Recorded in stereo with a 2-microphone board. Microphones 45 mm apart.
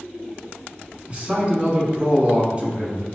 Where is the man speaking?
25° right (ahead or behind), 1.1 m.